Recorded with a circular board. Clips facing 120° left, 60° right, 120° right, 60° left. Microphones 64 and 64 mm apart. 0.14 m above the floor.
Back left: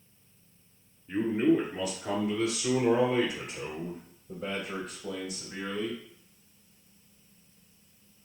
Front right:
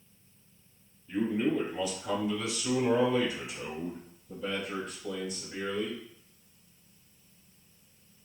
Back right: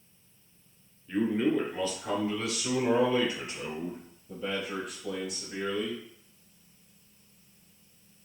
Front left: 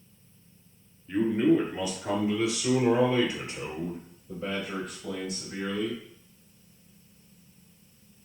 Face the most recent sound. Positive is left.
turn(degrees=110)